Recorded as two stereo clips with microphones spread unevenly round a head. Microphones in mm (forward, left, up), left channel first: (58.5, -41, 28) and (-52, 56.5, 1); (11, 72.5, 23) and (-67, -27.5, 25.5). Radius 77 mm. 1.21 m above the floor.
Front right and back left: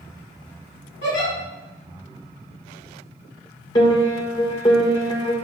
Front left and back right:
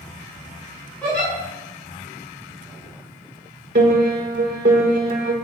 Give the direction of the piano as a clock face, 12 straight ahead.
4 o'clock.